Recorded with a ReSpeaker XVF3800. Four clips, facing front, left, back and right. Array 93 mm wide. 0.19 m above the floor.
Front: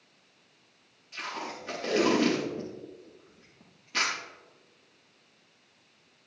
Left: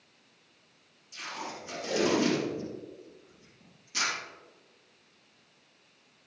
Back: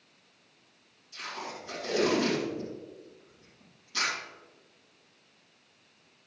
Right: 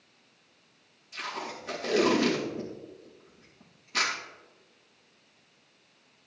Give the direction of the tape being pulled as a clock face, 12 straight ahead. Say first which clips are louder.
Right 3 dB, front 2 dB; 1 o'clock.